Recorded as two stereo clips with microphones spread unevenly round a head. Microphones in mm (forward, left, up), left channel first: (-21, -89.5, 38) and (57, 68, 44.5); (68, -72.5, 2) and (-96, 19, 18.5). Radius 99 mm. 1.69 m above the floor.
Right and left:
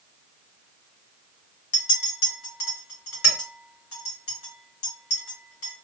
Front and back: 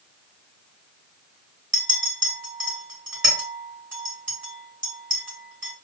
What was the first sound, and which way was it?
A clink, 130° right.